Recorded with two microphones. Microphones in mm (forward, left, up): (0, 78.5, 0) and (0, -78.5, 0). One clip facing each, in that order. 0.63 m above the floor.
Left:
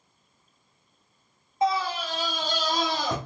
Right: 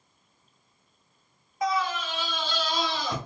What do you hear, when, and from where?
1.6 s a scream: 25° left (ahead or behind), 0.9 m; by 3.2 s 45° left (ahead or behind), 1.3 m